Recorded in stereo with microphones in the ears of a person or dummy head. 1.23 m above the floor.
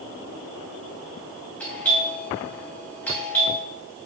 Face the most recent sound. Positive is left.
turn(degrees=10)  # may be behind; listen again after turning